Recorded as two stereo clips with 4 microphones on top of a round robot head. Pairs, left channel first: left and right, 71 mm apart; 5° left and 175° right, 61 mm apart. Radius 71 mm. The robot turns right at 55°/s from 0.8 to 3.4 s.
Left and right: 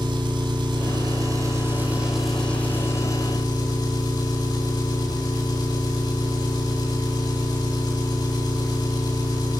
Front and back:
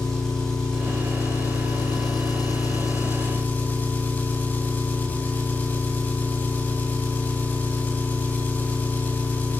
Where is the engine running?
80° right, 9 m; by 9.6 s 65° left, 9 m.